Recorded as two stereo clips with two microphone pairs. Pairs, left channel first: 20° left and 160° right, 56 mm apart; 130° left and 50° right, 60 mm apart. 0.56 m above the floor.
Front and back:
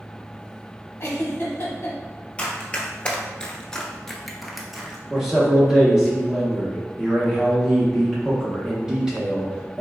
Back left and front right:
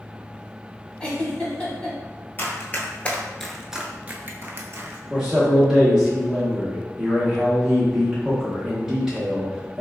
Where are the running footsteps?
85° left, 0.8 m; by 5.0 s 75° right, 0.8 m.